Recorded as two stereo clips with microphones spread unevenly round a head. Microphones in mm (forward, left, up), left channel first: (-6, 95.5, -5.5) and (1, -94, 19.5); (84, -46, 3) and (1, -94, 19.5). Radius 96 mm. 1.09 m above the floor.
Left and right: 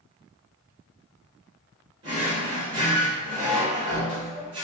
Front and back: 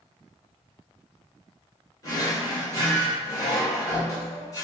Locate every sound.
2.0 s a drawer: 25° right, 1.8 m